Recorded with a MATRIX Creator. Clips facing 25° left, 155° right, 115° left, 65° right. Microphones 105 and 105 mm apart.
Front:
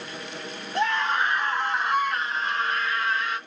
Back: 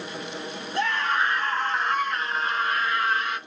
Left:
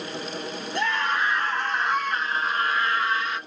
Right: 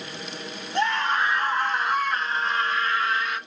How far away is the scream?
About 1.3 m.